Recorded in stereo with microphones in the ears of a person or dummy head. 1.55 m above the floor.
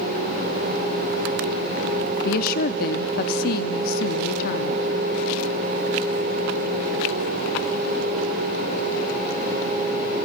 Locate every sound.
2.2 s a woman speaking: 60° left (ahead or behind), 0.6 m